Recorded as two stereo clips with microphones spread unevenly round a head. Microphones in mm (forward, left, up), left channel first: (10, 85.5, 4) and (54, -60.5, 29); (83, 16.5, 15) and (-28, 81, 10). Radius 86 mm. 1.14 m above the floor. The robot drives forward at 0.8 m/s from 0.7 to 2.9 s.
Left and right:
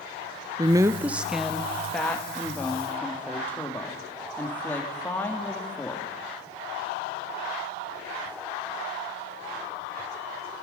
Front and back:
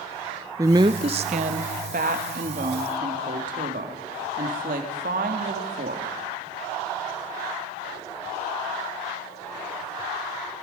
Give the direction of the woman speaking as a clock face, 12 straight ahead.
5 o'clock.